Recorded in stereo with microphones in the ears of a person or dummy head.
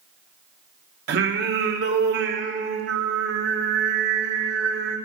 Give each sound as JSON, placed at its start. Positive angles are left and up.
{"t": 1.1, "sound": "singing", "side_deg": -60, "distance_m": 1.3}